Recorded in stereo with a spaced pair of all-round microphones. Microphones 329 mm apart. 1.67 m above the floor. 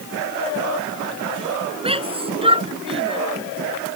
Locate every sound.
1.8 s a shout: 15° right (ahead or behind)